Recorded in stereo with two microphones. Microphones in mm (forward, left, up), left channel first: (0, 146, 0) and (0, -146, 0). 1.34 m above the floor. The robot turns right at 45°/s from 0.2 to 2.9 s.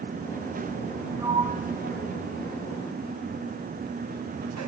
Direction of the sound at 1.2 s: 10° right (ahead or behind).